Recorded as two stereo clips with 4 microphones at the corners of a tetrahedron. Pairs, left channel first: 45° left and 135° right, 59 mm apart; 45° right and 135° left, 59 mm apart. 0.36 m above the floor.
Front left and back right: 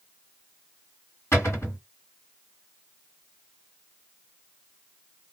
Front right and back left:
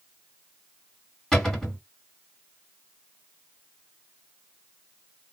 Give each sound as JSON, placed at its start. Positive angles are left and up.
{"t": 1.3, "sound": "a cupboard door", "azimuth_deg": 30, "distance_m": 2.0}